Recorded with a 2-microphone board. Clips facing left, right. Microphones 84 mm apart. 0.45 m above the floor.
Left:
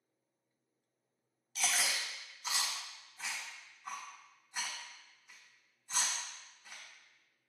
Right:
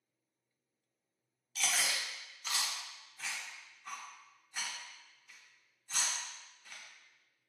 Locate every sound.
1.6 s chewing: 15° left (ahead or behind), 0.6 m